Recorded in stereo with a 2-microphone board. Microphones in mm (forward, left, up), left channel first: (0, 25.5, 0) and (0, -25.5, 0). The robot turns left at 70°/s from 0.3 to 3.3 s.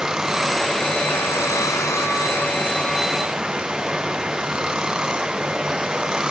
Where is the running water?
165° right; by 6.3 s 15° right.